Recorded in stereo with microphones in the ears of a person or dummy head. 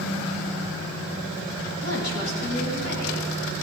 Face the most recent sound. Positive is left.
turn(degrees=65)  # may be behind; listen again after turning